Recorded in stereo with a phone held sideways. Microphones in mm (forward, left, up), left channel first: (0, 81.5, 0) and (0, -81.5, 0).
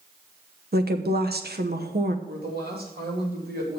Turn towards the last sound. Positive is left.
turn(degrees=-80)